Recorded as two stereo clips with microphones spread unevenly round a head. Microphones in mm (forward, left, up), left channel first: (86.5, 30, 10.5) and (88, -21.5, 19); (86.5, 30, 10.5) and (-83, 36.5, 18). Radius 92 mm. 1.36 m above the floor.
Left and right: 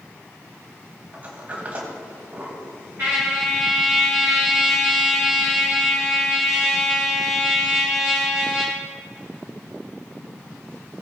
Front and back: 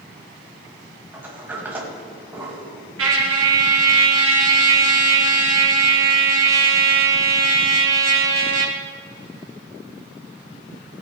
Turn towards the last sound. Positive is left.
turn(degrees=-165)